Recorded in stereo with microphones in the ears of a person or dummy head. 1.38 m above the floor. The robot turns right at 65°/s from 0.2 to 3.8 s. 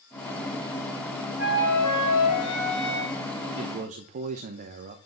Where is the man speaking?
20° right (ahead or behind), 0.7 m; by 5.0 s 35° right (ahead or behind), 0.7 m.